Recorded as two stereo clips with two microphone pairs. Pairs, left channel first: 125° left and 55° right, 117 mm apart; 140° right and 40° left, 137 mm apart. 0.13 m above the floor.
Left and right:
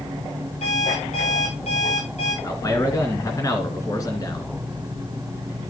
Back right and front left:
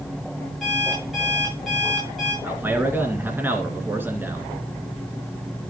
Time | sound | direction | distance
0.6 | an alarm clock | 130° left | 8 m
2.4 | a man speaking | 100° left | 2.0 m